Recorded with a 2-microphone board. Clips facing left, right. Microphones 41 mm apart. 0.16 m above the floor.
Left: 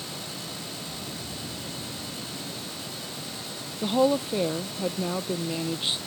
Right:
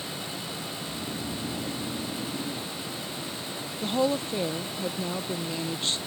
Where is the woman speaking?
10° left (ahead or behind).